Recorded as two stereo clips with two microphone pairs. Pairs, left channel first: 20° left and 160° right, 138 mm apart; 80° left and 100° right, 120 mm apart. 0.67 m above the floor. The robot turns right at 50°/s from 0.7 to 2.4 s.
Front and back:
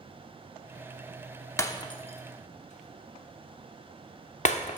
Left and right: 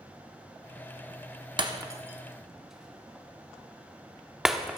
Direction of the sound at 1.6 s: 50° right.